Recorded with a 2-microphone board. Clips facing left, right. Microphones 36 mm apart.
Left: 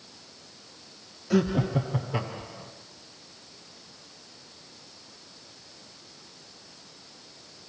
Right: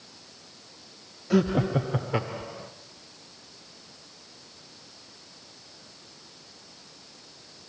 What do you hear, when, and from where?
1.3 s laughter: 10° right (ahead or behind), 0.8 m; by 2.7 s 40° right (ahead or behind), 1.9 m